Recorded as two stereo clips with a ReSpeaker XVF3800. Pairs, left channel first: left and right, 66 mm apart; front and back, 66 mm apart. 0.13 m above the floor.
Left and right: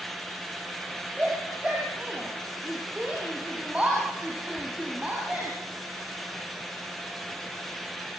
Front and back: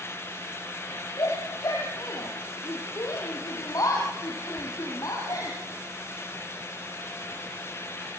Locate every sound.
1.2 s a shout: 20° right, 4 m